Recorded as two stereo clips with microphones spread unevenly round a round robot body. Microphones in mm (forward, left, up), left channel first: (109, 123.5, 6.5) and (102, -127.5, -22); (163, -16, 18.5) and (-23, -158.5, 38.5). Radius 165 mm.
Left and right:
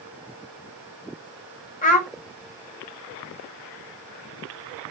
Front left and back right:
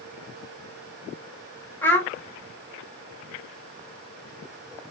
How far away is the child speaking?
About 0.6 m.